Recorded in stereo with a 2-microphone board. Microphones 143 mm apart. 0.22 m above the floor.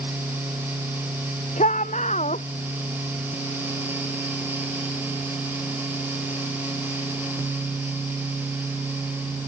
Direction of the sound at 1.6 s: 55° left (ahead or behind).